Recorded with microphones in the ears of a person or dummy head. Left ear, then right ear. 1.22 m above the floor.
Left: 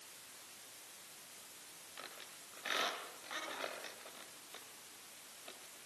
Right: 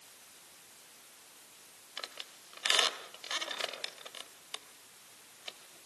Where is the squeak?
45° right (ahead or behind), 2.5 m.